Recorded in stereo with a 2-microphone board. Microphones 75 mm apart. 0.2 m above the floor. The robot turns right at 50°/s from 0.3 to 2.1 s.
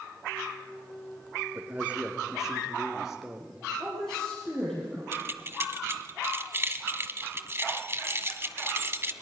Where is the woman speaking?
5° left (ahead or behind), 6 m.